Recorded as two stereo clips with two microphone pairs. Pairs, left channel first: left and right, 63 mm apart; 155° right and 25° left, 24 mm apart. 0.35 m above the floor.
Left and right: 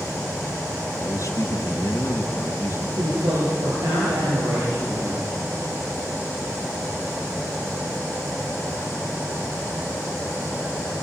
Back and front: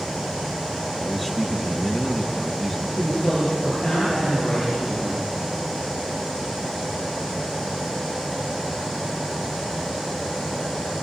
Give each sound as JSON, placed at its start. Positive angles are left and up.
{"t": 1.0, "sound": "a man speaking", "azimuth_deg": 125, "distance_m": 3.0}
{"t": 3.0, "sound": "a woman speaking", "azimuth_deg": -85, "distance_m": 8.0}